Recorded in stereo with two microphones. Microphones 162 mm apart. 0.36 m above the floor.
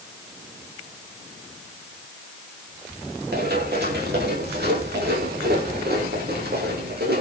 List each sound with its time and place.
3.3 s running footsteps: 90° right, 9.5 m; by 7.2 s 75° right (ahead or behind), 10.5 m